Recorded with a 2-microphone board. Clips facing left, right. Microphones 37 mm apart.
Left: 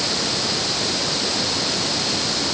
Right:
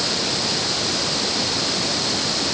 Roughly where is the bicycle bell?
I don't hear a bicycle bell.